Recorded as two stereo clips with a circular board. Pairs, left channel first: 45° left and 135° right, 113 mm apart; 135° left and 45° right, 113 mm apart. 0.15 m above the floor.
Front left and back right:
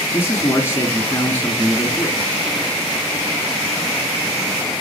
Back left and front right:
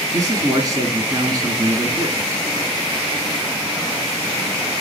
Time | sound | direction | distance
0.1 | a man speaking | 10° right | 1.9 m